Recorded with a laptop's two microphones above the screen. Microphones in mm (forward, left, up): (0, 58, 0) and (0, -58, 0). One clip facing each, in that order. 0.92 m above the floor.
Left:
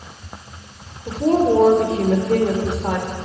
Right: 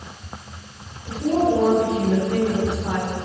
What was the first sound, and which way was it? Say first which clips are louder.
A woman speaking: left 3 dB; 80° left.